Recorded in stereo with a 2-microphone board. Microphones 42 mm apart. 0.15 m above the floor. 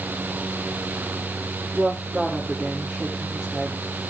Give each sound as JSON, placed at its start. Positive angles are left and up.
{"t": 1.7, "sound": "a woman speaking", "side_deg": 0, "distance_m": 5.5}